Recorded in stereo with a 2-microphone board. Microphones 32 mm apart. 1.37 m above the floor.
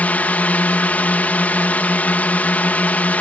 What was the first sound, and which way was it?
A drone, 55° left (ahead or behind).